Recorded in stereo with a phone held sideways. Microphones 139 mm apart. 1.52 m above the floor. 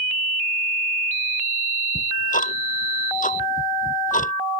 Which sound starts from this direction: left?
Ticking, at 1.9 s.